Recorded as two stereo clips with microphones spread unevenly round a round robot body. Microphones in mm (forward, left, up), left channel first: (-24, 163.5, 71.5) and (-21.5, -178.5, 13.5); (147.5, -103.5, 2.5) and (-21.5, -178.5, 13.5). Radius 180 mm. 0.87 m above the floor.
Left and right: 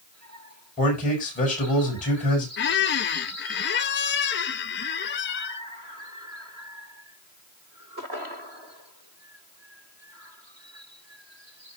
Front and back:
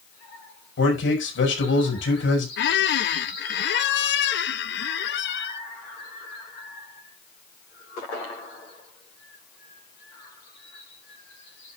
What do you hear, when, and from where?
0.8 s a man speaking: 20° left, 6 m
2.6 s a squeak: 25° left, 0.7 m